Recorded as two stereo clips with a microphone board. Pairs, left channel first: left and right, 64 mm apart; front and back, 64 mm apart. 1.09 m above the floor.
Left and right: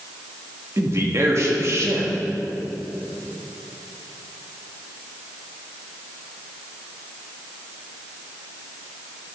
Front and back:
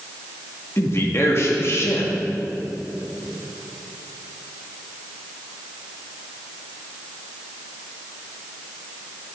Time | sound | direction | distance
0.8 | a man speaking | 50° right | 1.9 m